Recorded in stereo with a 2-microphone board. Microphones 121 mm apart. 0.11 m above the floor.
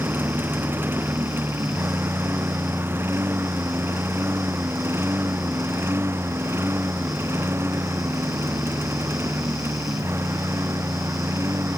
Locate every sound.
0.0 s a lawn mower: 20° right (ahead or behind); by 11.8 s 25° right (ahead or behind)